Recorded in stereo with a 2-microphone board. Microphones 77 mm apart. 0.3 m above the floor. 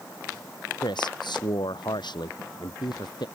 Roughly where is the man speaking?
Left.